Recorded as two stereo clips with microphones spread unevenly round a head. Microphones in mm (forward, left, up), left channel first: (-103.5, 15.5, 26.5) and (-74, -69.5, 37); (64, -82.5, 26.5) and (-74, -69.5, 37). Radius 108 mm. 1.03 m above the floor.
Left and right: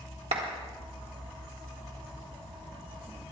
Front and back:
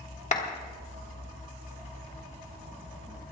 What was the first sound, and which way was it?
A clap, 40° right.